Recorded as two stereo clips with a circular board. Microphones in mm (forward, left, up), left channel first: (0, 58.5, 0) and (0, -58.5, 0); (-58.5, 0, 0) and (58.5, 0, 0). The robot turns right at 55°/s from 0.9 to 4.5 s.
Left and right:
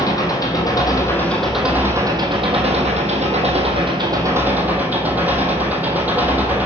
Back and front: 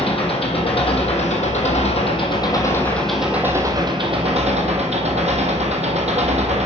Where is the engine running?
145° left, 1.1 m; by 6.7 s 15° right, 1.1 m.